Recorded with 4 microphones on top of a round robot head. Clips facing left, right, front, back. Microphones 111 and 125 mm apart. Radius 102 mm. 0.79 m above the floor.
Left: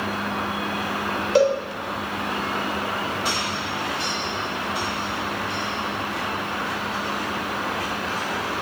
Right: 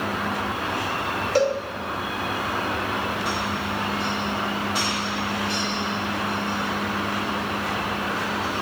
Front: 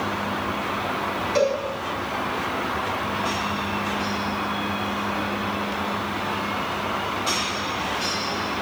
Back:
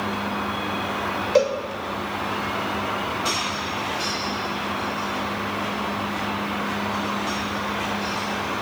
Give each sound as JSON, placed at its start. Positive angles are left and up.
{"t": 1.4, "sound": "a cowbell", "azimuth_deg": 155, "distance_m": 2.5}